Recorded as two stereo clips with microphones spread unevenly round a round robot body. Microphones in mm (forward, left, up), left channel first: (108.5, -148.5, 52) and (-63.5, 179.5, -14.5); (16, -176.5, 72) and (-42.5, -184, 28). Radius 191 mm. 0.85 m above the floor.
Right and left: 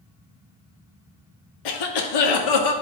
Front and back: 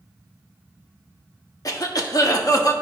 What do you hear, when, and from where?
1.6 s a cough: 40° right, 1.6 m